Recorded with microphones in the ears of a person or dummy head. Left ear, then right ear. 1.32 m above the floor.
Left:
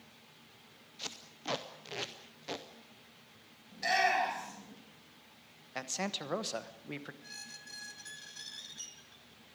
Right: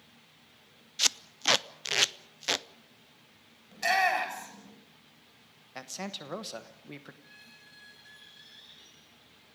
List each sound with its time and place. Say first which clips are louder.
1.0 s tape being pulled: right 15 dB; 60° right (ahead or behind), 0.6 m
3.7 s a shout: right 3 dB; 35° right (ahead or behind), 7 m
5.8 s a man speaking: left 2 dB; 5° left (ahead or behind), 1.1 m
7.2 s a squeak: left 6 dB; 40° left (ahead or behind), 2 m